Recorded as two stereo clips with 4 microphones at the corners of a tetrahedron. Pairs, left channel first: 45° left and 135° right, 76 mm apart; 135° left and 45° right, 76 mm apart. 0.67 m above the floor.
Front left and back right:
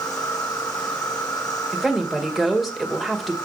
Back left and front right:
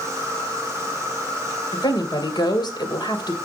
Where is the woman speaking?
135° left, 2.5 m.